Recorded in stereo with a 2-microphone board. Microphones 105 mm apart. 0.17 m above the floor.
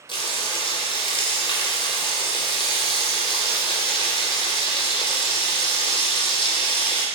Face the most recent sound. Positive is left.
turn(degrees=50)  # may be behind; listen again after turning